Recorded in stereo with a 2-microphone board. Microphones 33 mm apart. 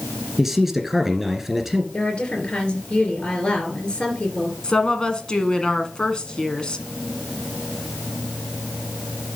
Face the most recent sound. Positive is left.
turn(degrees=25)  # may be behind; listen again after turning